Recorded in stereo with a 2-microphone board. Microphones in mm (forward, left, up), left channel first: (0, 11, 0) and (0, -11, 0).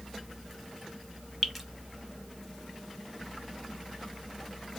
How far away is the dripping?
About 0.9 m.